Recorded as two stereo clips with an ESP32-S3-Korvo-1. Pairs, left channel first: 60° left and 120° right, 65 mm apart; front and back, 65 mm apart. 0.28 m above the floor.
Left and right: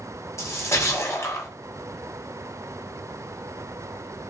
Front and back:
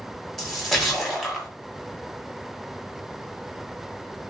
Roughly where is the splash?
Left.